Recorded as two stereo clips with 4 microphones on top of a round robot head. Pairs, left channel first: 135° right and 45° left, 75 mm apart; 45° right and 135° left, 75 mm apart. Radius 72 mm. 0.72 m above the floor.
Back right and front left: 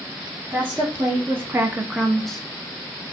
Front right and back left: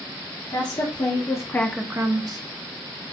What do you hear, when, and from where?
0.5 s a woman speaking: 20° right, 1.4 m; by 2.4 s 140° left, 0.8 m